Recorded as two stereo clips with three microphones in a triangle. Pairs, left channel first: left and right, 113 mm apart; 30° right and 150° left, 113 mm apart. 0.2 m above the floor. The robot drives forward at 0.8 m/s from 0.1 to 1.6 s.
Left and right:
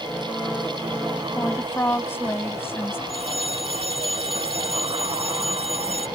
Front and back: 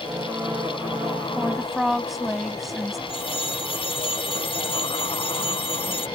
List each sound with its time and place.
1.4 s a woman speaking: 45° left; by 3.0 s 65° left
3.1 s a phone ringing: 65° right